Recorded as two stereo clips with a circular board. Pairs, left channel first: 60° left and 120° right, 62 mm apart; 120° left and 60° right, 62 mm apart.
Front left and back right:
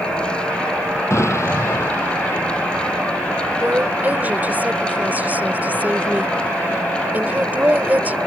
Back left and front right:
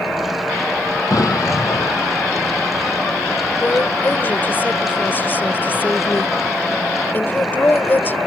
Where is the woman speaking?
175° left.